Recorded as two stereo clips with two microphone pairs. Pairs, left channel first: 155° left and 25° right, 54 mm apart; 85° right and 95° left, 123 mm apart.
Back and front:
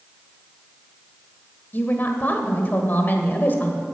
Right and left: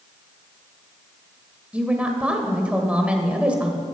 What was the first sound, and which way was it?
A woman speaking, 165° left.